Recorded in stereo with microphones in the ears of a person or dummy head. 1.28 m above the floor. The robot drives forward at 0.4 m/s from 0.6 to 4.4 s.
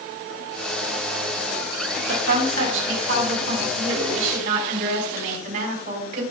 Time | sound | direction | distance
2.1 | a woman speaking | 75° right (ahead or behind) | 4.5 m